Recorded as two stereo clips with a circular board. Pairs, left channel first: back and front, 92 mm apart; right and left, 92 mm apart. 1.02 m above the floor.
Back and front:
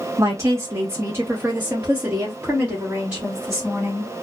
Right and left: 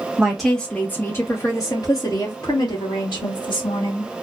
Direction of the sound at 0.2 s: 15° left.